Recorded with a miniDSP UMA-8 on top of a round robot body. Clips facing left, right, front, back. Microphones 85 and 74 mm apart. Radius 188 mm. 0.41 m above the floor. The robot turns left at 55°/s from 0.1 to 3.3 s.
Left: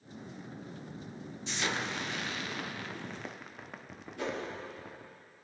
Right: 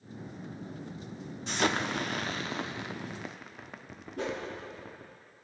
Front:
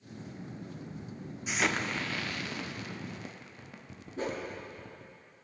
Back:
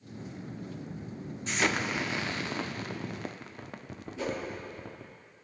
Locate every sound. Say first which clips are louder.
1.5 s an explosion: right 6 dB, back 2 dB; 80° right, 1.1 m; by 5.2 s straight behind, 1.1 m
4.2 s a whoosh: right 2 dB, back 1 dB; 45° right, 6.5 m